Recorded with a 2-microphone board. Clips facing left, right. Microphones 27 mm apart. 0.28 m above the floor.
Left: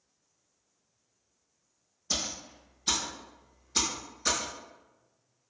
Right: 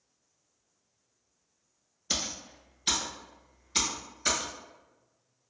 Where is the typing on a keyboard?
70° right (ahead or behind), 1.3 m.